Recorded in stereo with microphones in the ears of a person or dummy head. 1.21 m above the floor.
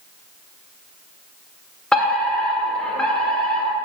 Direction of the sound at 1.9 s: 5° left (ahead or behind).